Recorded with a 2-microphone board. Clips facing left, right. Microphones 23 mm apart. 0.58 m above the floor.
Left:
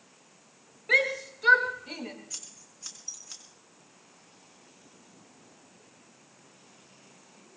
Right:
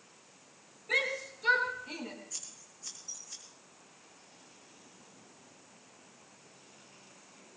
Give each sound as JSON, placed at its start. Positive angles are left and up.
{"t": 0.9, "sound": "a shout", "side_deg": 40, "distance_m": 4.0}
{"t": 2.3, "sound": "scissors", "side_deg": 70, "distance_m": 4.0}